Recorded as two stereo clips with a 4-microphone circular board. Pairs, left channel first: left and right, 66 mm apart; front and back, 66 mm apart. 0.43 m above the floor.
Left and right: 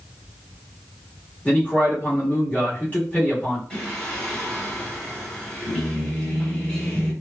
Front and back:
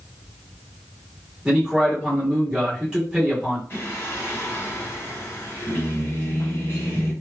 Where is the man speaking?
110° left, 1.4 m.